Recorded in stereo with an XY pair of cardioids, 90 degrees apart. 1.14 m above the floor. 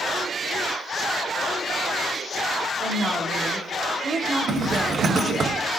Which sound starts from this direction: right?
A zipper, at 4.5 s.